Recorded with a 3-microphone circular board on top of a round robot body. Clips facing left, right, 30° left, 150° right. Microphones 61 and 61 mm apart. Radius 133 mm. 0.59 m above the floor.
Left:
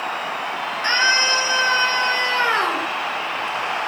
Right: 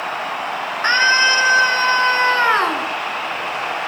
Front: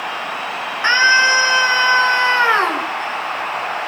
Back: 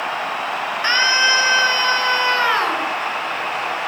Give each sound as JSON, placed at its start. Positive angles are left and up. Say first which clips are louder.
{"t": 0.8, "sound": "a scream", "louder": "right 4 dB, front 5 dB", "azimuth_deg": -40, "distance_m": 10.0}